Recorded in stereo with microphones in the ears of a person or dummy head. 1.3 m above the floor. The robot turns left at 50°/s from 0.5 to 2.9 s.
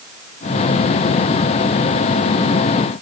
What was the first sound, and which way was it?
Only background noise.